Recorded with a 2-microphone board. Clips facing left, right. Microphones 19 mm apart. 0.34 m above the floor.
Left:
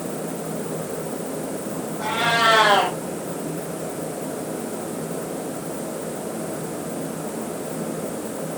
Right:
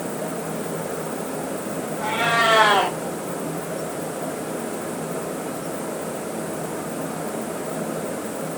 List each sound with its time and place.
2.0 s a cat meowing: 75° left (ahead or behind), 4.5 m